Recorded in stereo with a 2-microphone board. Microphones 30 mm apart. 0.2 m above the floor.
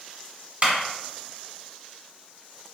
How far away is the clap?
About 1.7 m.